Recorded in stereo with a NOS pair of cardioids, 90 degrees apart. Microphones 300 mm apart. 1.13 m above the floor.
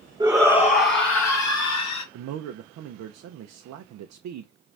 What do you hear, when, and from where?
0.2 s a shout: 15° right, 0.6 m; by 2.0 s 60° left, 1.9 m
2.1 s a man speaking: 65° right, 0.6 m